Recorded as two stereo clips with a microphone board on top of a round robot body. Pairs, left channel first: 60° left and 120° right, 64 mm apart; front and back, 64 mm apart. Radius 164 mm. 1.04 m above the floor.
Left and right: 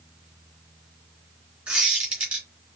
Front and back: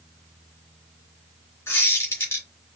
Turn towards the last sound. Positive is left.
turn(degrees=-50)